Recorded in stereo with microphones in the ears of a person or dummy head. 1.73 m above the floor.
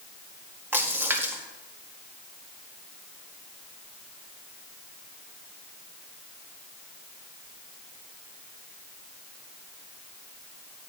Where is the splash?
20° right (ahead or behind), 1.8 m.